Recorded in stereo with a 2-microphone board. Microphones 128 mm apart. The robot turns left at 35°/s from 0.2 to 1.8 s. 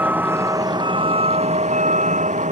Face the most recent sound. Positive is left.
turn(degrees=-70)